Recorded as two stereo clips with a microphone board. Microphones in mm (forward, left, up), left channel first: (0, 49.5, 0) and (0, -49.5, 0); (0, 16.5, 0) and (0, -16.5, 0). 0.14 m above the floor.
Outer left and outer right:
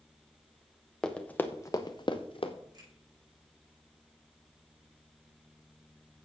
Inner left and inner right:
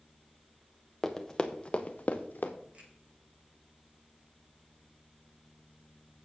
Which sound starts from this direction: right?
A finger snap, at 2.7 s.